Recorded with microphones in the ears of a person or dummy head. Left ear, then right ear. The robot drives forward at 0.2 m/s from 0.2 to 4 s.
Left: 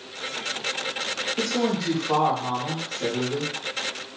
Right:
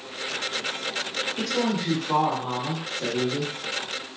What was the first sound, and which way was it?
A woman speaking, 30° left (ahead or behind).